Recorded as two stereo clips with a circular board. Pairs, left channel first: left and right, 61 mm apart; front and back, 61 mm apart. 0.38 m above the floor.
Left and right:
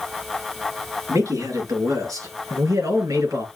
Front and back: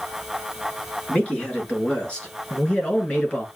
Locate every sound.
1.1 s a man speaking: 70° right, 6 m